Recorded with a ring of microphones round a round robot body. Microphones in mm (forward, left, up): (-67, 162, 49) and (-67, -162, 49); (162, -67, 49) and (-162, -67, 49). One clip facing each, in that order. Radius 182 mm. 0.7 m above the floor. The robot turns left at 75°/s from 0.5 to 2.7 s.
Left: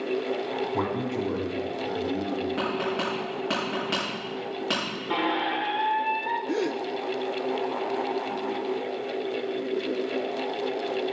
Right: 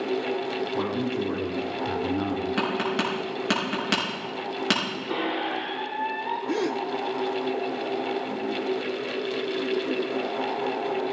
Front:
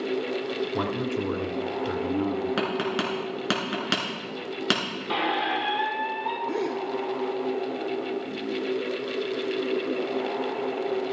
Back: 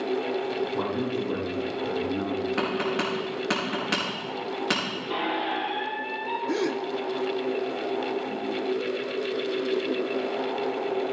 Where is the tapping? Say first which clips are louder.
Right 1 dB, even; 30° right, 4.5 m; by 4.8 s 40° right, 4.5 m.